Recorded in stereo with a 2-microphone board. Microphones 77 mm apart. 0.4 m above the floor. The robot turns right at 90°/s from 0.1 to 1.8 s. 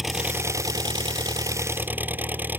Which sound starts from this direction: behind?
An engine running, at 0.0 s.